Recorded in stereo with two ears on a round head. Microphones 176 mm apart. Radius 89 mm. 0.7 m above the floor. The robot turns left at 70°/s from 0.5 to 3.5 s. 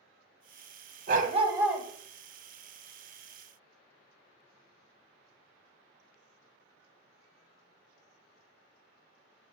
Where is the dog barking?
125° right, 0.9 m; by 1.9 s straight behind, 0.9 m.